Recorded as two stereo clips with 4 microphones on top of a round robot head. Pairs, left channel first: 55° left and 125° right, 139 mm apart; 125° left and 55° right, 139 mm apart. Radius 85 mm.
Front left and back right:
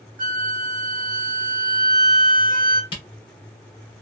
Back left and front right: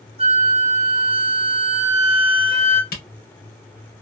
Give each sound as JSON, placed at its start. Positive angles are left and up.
{"t": 0.2, "sound": "a flute", "azimuth_deg": -105, "distance_m": 1.0}
{"t": 2.9, "sound": "a camera shutter", "azimuth_deg": 110, "distance_m": 1.6}